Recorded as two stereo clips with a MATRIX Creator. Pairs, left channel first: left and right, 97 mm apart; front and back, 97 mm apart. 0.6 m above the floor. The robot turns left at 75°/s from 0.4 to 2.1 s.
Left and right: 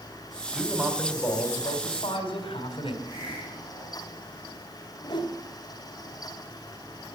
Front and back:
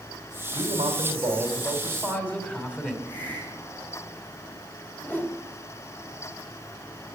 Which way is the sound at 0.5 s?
170° right.